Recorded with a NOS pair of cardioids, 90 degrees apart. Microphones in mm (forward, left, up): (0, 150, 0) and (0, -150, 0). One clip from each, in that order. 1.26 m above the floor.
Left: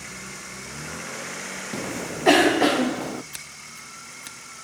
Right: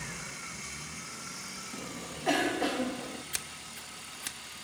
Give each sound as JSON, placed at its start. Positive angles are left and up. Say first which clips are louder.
{"t": 1.7, "sound": "a cough", "louder": "left 10 dB", "azimuth_deg": 55, "distance_m": 0.6}
{"t": 3.3, "sound": "scissors", "louder": "left 1 dB", "azimuth_deg": -15, "distance_m": 1.9}